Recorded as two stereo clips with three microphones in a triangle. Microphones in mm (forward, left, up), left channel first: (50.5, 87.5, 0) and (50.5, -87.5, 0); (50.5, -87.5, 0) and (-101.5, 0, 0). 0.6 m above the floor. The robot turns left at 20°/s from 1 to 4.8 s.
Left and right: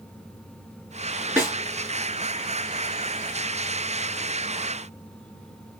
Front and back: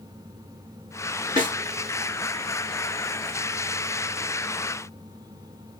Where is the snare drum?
20° right, 1.7 m.